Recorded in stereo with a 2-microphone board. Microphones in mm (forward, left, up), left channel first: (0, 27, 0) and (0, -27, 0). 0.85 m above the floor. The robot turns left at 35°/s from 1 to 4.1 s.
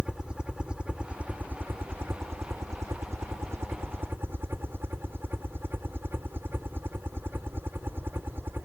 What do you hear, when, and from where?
0.0 s a helicopter: 20° right; by 8.7 s 130° right